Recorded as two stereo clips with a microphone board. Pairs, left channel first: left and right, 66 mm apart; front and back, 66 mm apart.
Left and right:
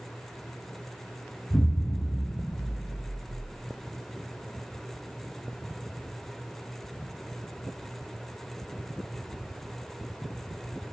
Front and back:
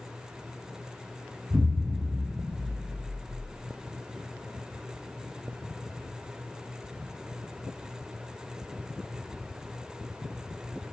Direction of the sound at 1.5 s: 150° left.